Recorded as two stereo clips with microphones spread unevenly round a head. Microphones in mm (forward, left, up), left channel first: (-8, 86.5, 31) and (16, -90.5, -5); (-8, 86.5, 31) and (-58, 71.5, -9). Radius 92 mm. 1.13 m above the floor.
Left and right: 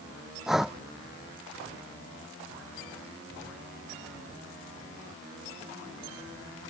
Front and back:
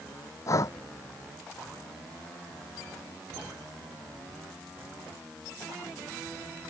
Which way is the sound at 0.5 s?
10° left.